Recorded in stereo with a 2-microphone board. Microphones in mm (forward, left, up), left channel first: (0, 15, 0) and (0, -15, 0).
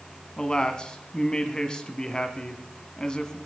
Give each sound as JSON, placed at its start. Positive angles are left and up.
{"t": 0.4, "sound": "a man speaking", "side_deg": 25, "distance_m": 1.4}